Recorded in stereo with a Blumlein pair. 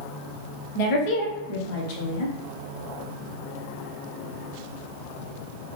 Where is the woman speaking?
45° left, 1.1 m.